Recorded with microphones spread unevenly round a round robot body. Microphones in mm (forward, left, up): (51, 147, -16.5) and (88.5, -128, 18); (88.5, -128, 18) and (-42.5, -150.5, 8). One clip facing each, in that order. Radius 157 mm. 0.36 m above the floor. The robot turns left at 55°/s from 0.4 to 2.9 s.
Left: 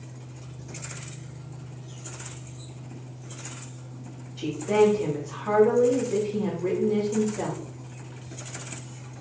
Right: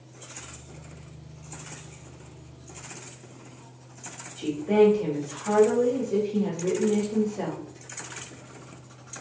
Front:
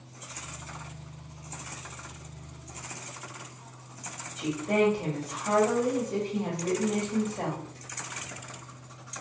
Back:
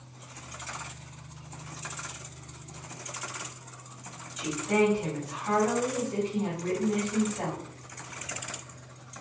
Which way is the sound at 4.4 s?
25° left.